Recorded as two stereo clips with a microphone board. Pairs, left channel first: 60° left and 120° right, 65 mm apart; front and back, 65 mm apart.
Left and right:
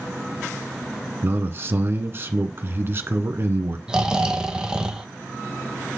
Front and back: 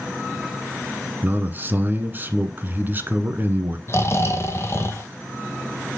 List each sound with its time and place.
1.2 s a man speaking: 140° right, 1.5 m
3.9 s snoring: 45° right, 1.3 m